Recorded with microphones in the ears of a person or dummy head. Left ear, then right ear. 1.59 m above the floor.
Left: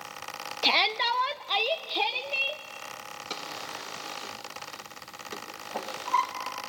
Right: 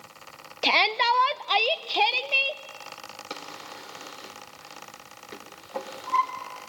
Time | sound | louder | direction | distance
0.6 | a shout | right 3 dB | 10° right (ahead or behind) | 0.5 m
3.3 | a drawer | left 3 dB | centre (ahead or behind) | 2 m